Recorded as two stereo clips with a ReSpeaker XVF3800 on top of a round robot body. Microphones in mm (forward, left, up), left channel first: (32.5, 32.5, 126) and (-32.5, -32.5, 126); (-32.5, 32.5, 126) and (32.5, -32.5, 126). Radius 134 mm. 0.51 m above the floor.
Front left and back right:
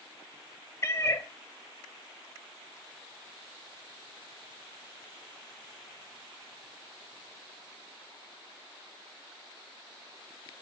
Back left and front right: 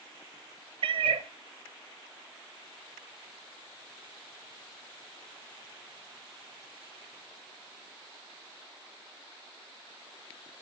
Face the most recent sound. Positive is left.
turn(degrees=-15)